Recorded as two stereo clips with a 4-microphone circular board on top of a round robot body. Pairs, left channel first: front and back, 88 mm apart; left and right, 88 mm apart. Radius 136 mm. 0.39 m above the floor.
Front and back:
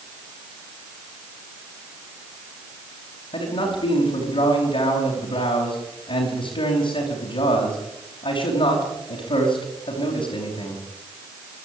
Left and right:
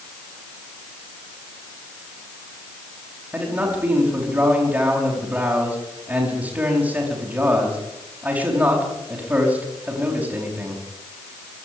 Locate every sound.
3.3 s a man speaking: 20° right, 5 m